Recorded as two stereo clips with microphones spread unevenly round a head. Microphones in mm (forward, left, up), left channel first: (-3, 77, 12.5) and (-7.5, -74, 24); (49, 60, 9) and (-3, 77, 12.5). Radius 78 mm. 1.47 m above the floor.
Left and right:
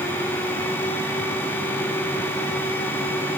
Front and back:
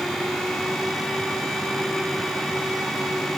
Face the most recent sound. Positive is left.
No sound to turn to.